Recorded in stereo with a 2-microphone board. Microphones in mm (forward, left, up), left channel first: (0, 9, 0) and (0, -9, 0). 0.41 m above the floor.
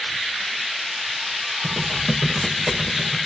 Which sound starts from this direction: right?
Typing on a keyboard, at 1.6 s.